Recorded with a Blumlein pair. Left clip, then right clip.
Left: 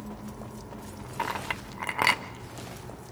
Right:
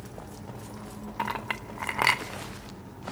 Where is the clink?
Straight ahead, 0.8 m.